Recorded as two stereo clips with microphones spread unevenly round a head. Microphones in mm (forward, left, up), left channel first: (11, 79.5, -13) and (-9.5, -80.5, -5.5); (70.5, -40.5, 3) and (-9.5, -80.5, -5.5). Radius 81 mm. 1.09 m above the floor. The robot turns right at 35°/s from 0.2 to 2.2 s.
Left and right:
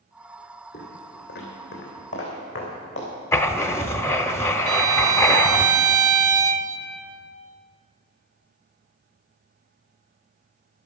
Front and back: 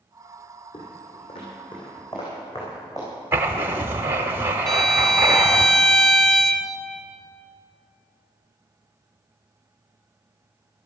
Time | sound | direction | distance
0.7 | footsteps | 35° left | 3 m
3.3 | writing | 150° left | 0.8 m
4.7 | a violin | 50° right | 0.9 m